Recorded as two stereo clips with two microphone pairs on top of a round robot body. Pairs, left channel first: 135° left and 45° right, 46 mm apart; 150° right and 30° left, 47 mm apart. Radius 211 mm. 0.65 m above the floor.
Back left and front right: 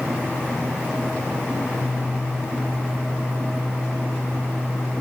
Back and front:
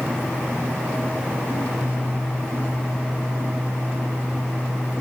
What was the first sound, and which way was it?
Only background noise.